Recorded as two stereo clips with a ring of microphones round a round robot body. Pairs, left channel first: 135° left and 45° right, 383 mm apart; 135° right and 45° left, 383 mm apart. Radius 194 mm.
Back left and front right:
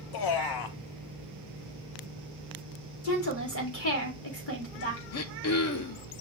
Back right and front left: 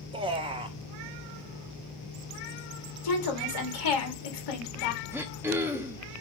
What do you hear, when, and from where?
0.1 s a man speaking: 120° left, 0.7 m
3.0 s a woman speaking: 170° right, 1.9 m
5.1 s throat clearing: 125° left, 0.6 m